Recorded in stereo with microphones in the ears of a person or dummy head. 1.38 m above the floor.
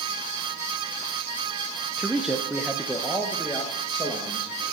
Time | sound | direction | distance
2.0 | a man speaking | 5° right (ahead or behind) | 0.8 m